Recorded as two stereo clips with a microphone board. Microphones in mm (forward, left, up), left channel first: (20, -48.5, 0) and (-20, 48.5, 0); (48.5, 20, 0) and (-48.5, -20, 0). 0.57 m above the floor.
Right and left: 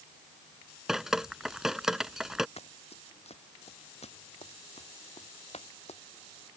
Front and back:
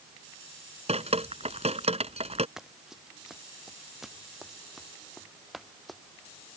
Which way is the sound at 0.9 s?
160° right.